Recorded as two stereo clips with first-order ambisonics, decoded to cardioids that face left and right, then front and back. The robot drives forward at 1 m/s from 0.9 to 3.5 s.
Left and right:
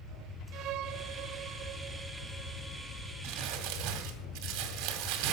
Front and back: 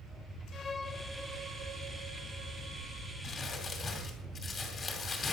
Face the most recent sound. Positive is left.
turn(degrees=-70)